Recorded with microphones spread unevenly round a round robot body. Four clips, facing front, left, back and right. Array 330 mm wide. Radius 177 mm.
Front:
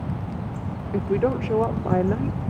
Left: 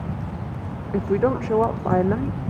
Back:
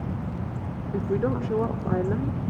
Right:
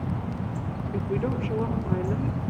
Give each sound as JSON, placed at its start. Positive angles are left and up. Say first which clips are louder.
{"t": 0.9, "sound": "a woman speaking", "louder": "left 8 dB, front 3 dB", "azimuth_deg": 65, "distance_m": 0.9}